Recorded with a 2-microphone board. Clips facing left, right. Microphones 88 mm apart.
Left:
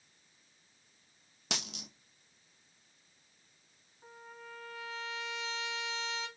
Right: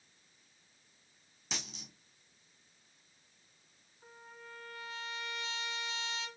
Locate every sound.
1.5 s a dropped coin: 80° left, 0.9 m
4.0 s a trumpet: 5° left (ahead or behind), 4 m